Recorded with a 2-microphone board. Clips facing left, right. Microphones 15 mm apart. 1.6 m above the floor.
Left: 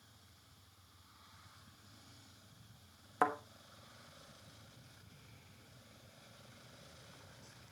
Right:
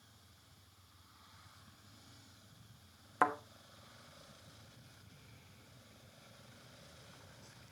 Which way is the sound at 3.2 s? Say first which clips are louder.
Right 1 dB; 10° right (ahead or behind).